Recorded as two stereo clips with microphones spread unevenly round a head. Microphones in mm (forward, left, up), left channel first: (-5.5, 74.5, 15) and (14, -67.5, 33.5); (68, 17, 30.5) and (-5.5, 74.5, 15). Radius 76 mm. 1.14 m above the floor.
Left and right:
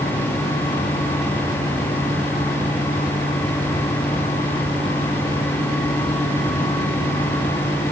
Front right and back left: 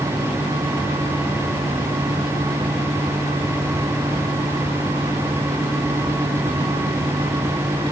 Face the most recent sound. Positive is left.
No sound to turn to.